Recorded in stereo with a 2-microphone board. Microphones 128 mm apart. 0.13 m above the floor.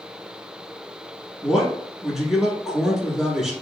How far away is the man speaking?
About 1.2 m.